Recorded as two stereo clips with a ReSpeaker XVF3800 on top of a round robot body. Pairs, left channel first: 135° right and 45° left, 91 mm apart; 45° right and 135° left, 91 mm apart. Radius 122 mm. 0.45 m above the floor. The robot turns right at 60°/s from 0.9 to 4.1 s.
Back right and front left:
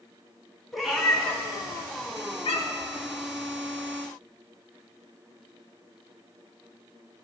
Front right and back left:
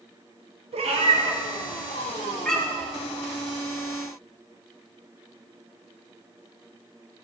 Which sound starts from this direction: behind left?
A cat meowing, at 0.7 s.